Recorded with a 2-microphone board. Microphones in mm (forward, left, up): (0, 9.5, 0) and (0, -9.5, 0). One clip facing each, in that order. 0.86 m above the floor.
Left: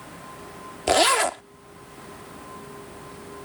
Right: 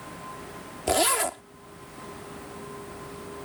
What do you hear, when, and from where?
0.9 s a zipper: 30° left (ahead or behind)